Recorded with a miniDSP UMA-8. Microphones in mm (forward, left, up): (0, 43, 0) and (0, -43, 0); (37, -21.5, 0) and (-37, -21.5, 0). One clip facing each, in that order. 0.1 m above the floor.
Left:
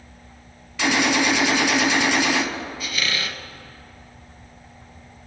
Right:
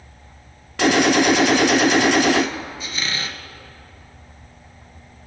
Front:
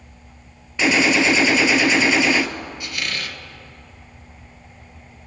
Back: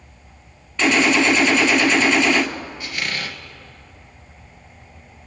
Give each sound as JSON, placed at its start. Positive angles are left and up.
{"t": 0.8, "sound": "a gunshot", "azimuth_deg": -80, "distance_m": 0.7}
{"t": 2.8, "sound": "a squeak", "azimuth_deg": -130, "distance_m": 1.0}